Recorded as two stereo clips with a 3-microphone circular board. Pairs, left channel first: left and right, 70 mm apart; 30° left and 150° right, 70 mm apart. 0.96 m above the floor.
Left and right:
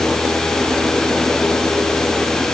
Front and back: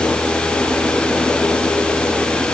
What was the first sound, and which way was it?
Only background noise.